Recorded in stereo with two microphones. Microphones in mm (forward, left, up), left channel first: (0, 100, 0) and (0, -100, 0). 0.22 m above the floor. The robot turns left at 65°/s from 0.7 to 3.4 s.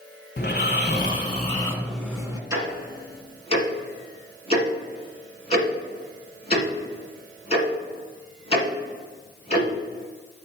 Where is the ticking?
15° right (ahead or behind), 1.8 m; by 9.7 s 35° left (ahead or behind), 1.8 m.